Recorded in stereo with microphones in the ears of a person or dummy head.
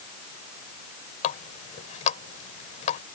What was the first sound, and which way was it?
A running tap, 40° left (ahead or behind).